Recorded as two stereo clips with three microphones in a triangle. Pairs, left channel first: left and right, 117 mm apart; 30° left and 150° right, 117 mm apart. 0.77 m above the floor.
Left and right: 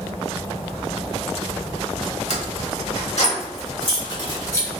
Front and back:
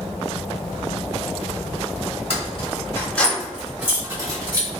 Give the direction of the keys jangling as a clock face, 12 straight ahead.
10 o'clock.